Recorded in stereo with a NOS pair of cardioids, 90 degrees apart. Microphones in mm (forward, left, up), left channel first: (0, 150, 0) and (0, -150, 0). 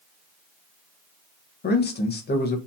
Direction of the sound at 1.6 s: 30° left.